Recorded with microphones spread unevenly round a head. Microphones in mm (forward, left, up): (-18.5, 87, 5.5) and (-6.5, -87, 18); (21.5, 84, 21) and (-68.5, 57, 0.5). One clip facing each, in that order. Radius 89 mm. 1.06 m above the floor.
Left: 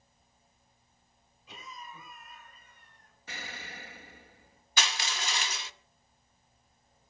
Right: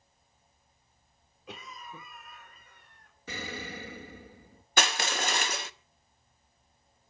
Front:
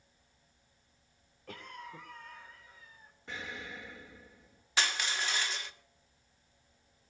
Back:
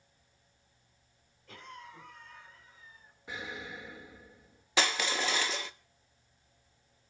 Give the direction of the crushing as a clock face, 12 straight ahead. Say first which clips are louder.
Right 6 dB, back 4 dB; 4 o'clock.